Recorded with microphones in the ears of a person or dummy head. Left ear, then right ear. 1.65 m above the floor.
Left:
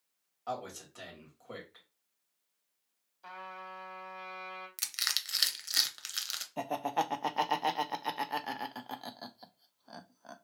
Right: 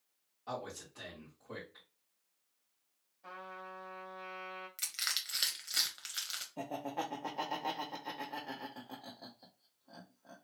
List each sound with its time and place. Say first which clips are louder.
0.5 s a man speaking: left 3 dB; 50° left (ahead or behind), 2.0 m
3.2 s a trumpet: left 3 dB; 65° left (ahead or behind), 1.4 m
4.8 s crushing: left 4 dB; 15° left (ahead or behind), 0.7 m
6.6 s laughter: left 8 dB; 55° left (ahead or behind), 0.6 m